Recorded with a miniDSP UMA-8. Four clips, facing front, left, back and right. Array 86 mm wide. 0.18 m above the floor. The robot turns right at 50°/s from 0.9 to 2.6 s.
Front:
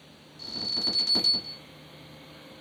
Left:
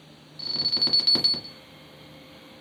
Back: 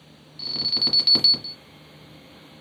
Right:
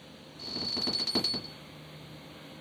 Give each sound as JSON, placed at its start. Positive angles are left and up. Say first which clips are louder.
{"t": 0.4, "sound": "an alarm", "louder": "left 1 dB, back 4 dB", "azimuth_deg": 150, "distance_m": 1.2}